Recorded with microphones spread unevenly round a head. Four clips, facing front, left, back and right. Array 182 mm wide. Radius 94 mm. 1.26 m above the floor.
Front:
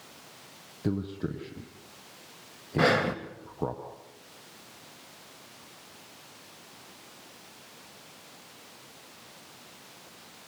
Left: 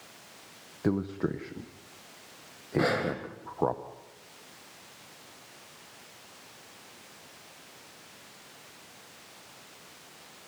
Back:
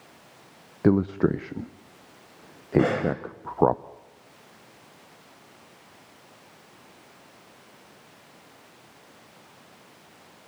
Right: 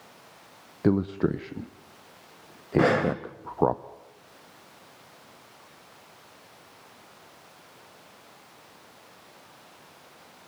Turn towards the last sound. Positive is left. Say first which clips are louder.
# right 6 dB, back 2 dB
turn(degrees=-65)